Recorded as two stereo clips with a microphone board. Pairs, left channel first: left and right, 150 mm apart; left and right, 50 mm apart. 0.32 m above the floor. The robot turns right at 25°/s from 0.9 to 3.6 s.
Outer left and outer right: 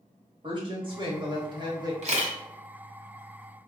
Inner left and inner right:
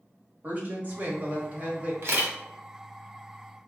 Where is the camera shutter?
50° right (ahead or behind), 1.3 m; by 2.3 s 55° right (ahead or behind), 1.3 m.